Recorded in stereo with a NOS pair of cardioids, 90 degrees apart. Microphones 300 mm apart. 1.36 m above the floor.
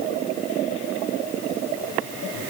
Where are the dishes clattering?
I don't hear dishes clattering.